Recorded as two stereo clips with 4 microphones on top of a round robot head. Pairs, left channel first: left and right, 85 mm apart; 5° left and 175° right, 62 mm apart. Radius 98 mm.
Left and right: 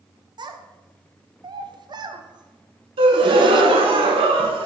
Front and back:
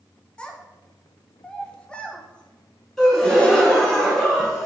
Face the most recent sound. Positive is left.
turn(degrees=-75)